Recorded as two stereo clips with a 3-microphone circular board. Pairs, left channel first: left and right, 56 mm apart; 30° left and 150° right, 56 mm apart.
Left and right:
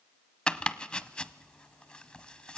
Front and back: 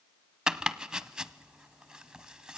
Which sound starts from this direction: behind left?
Chopping, at 0.5 s.